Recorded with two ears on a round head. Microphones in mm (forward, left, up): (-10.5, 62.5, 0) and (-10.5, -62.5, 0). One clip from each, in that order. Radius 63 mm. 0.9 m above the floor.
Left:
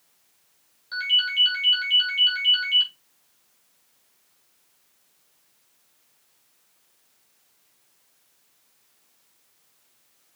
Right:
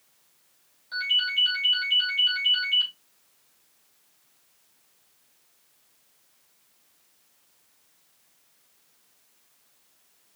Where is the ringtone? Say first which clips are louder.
Left 2 dB; 25° left (ahead or behind), 2.5 m.